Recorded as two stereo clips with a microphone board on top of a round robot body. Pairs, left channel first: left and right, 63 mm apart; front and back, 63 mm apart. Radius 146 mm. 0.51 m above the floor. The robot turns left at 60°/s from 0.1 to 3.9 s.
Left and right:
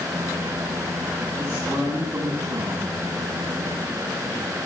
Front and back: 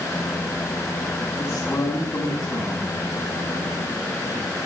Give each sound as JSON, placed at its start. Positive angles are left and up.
{"t": 1.4, "sound": "a man speaking", "azimuth_deg": -35, "distance_m": 6.5}